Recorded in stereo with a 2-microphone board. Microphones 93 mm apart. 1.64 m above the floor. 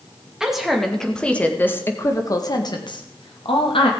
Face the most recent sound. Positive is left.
turn(degrees=75)  # may be behind; listen again after turning